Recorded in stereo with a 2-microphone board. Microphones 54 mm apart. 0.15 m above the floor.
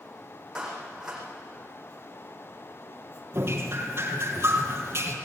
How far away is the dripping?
About 4 m.